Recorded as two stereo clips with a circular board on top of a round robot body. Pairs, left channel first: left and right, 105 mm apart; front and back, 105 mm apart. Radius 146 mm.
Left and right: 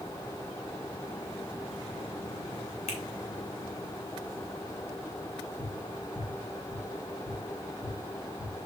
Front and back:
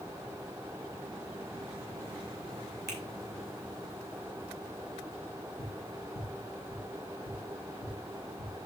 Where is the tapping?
10° right, 2 m.